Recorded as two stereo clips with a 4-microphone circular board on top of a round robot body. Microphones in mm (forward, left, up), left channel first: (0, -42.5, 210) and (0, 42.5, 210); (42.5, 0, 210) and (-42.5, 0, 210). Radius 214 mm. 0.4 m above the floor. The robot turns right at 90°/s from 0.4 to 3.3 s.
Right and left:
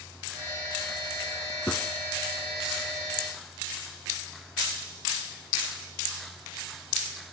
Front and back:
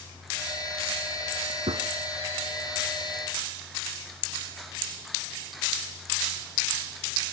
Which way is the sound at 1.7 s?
165° right.